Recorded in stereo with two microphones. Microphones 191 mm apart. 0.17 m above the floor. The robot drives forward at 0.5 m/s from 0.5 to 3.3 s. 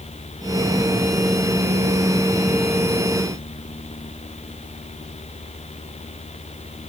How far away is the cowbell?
I don't hear a cowbell.